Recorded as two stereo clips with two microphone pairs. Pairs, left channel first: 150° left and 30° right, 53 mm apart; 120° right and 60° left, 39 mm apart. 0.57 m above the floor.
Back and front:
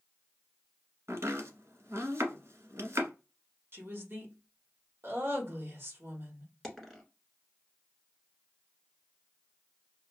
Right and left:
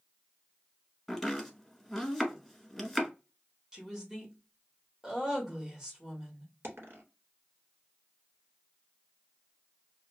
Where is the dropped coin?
65° left, 1.2 m.